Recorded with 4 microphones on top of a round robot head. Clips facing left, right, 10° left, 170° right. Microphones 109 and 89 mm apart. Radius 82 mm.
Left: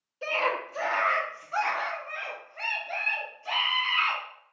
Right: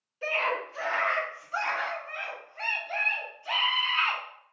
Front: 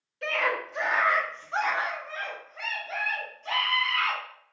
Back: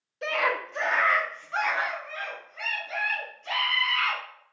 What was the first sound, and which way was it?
A scream, 140° left.